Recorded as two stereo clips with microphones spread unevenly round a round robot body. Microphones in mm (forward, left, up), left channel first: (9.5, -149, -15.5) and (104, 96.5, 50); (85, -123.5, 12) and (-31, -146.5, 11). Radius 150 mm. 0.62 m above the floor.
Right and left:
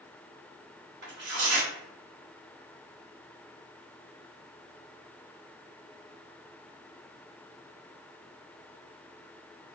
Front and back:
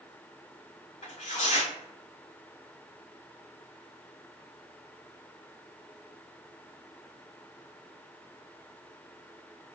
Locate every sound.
1.0 s tearing paper: 50° left, 1.8 m